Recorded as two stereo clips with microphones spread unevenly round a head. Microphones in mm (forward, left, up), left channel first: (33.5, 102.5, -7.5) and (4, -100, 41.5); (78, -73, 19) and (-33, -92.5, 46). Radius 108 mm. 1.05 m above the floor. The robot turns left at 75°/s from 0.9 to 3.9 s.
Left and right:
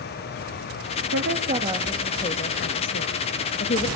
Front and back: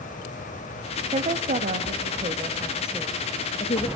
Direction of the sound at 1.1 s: 130° right.